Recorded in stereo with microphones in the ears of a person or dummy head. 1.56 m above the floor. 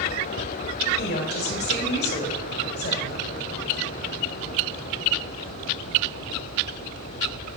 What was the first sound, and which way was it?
A woman speaking, 50° left (ahead or behind).